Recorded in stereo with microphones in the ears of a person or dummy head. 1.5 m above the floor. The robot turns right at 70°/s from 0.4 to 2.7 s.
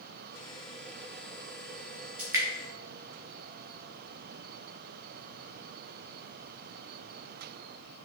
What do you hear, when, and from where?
2.2 s dripping: 5° right (ahead or behind), 0.7 m; by 2.5 s 20° right (ahead or behind), 0.7 m